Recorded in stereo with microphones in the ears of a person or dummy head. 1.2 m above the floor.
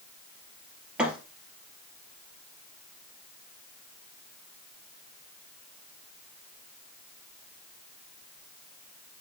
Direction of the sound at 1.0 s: 10° right (ahead or behind).